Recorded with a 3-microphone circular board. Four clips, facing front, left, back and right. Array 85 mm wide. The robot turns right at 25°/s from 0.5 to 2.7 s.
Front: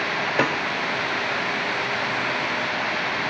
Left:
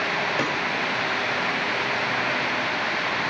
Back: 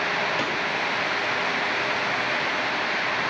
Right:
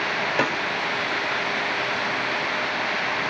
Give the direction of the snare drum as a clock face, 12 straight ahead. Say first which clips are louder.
Right 2 dB, front 4 dB; 1 o'clock.